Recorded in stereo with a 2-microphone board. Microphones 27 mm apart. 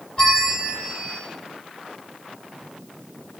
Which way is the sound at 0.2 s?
30° left (ahead or behind).